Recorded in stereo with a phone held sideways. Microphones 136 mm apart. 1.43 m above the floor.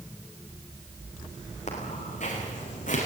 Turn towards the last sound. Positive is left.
turn(degrees=70)  # may be behind; listen again after turning